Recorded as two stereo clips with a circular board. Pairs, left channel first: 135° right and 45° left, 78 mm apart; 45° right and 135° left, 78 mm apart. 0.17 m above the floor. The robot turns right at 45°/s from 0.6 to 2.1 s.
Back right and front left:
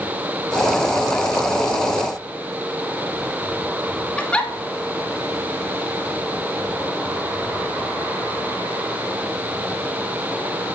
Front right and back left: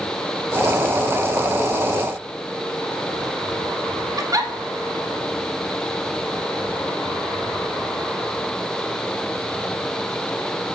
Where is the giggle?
155° left, 0.6 m.